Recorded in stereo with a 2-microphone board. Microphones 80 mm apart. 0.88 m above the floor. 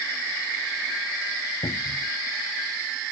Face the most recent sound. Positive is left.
turn(degrees=75)  # may be behind; listen again after turning